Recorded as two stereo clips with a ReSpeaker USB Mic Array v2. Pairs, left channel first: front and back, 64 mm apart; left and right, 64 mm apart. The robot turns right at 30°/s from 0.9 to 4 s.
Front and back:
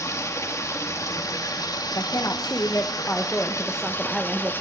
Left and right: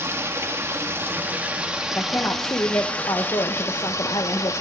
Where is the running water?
40° right, 1.9 m; by 4.6 s 55° left, 1.9 m.